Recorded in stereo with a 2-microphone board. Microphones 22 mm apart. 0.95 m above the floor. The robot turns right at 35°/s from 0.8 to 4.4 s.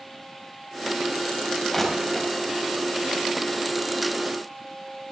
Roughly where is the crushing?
Centre.